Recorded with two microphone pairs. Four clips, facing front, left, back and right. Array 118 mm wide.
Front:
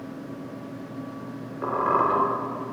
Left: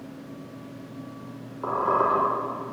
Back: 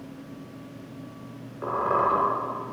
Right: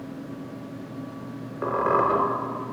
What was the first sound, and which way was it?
A squeak, 85° right.